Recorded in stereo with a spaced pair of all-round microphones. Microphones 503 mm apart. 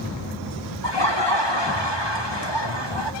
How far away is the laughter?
About 2 m.